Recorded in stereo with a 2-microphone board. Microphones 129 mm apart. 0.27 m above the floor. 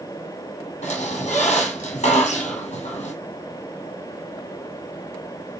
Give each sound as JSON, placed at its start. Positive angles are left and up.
{"t": 0.8, "sound": "a squeak", "side_deg": 70, "distance_m": 2.5}